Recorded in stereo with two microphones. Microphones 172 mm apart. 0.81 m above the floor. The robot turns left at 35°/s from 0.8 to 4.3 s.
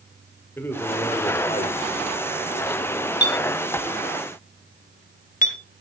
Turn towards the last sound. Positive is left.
turn(degrees=50)  # may be behind; listen again after turning